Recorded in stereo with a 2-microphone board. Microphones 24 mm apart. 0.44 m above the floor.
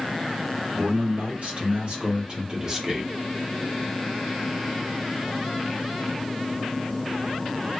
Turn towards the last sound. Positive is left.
turn(degrees=-10)  # may be behind; listen again after turning